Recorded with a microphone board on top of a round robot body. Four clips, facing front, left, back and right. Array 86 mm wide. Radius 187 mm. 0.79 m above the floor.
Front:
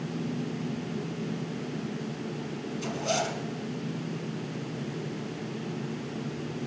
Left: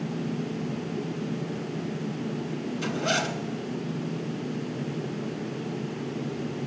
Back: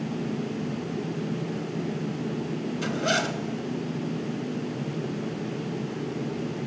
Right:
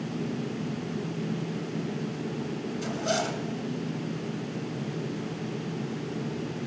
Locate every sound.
2.8 s a zipper: 155° left, 2 m